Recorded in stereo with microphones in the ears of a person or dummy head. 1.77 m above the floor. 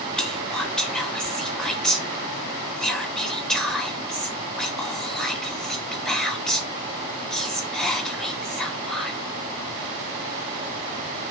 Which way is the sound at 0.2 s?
5° left (ahead or behind).